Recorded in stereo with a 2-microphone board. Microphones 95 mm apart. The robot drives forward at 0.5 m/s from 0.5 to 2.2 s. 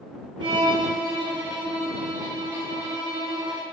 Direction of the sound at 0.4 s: 50° right (ahead or behind).